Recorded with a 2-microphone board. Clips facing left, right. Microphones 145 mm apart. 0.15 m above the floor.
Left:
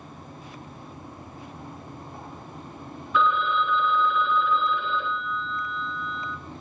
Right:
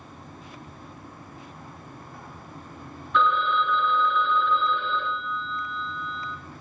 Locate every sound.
3.1 s a phone ringing: 5° left (ahead or behind), 1.8 m